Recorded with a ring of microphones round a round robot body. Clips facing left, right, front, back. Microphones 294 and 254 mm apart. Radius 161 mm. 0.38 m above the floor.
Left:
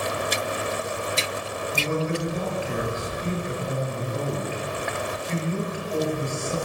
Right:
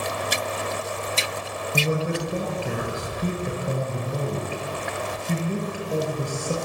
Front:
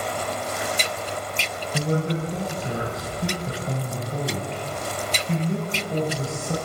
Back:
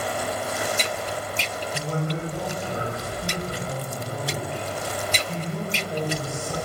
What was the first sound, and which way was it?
A man speaking, 35° right.